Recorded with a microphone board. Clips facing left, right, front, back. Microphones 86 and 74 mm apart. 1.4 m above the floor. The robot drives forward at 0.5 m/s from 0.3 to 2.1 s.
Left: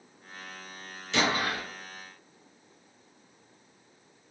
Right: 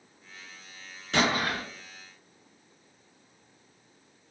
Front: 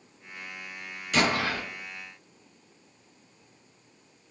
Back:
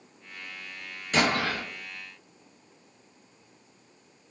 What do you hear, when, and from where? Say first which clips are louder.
1.1 s an explosion: right 1 dB, even; 130° right, 1.0 m; by 1.6 s 140° right, 1.2 m